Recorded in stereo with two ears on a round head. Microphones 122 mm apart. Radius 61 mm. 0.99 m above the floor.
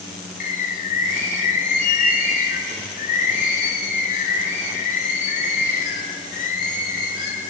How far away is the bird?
About 3 m.